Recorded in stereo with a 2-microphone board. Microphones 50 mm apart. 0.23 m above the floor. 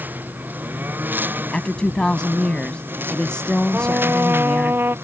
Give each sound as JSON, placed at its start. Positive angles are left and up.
{"t": 0.0, "sound": "a lawn mower", "side_deg": -35}
{"t": 1.5, "sound": "a woman speaking", "side_deg": 15}
{"t": 3.7, "sound": "a trumpet", "side_deg": -45}